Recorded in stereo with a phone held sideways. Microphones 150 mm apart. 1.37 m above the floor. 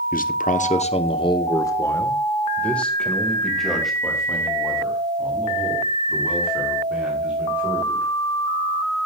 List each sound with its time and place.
0.1 s a man speaking: 70° left (ahead or behind), 0.8 m; by 8.1 s 10° right (ahead or behind), 5.5 m